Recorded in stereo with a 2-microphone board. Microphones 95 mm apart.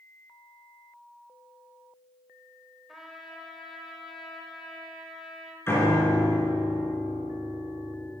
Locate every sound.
2.9 s a trumpet: 5° right (ahead or behind), 1.1 m
5.7 s a piano: 25° left (ahead or behind), 2 m